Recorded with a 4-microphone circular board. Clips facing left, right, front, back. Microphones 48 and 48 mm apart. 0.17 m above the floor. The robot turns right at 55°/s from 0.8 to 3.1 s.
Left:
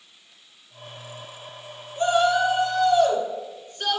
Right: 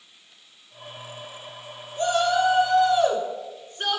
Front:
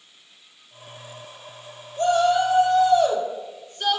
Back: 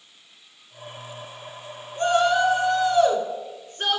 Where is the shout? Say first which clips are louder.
Left 2 dB, front 1 dB; 150° left, 1.9 m; by 4.0 s 150° right, 1.9 m.